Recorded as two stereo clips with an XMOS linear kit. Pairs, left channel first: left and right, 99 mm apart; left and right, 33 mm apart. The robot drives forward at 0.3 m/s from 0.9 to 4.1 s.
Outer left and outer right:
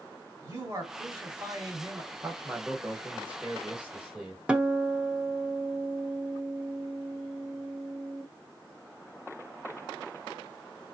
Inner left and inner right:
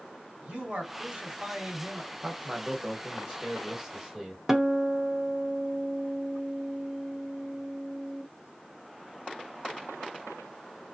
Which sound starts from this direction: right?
A man speaking, at 0.4 s.